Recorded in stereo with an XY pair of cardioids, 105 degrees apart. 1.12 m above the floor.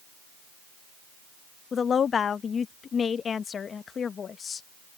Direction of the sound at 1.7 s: 45° left.